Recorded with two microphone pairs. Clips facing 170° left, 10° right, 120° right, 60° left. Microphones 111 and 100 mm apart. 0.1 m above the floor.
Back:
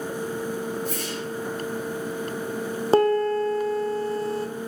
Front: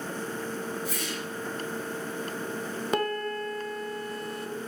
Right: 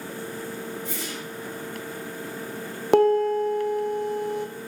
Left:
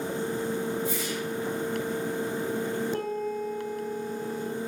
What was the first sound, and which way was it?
A whoosh, 155° right.